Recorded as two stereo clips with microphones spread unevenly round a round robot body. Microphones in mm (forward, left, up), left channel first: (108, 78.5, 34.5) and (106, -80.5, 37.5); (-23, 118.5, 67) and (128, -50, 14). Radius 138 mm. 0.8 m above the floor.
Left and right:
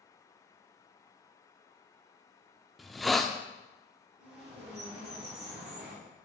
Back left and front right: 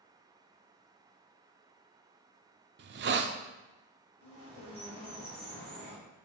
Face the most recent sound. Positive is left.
turn(degrees=-115)